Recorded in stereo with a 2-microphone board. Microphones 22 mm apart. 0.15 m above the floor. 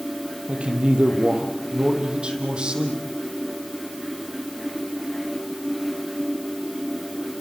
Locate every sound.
0.5 s a man speaking: 55° right (ahead or behind), 5.5 m; by 3.0 s 45° right (ahead or behind), 7.5 m